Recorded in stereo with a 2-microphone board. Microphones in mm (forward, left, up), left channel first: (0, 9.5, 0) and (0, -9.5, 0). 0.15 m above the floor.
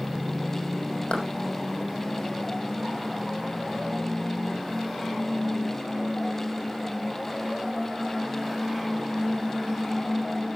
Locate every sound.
1.1 s a clap: 80° left, 6 m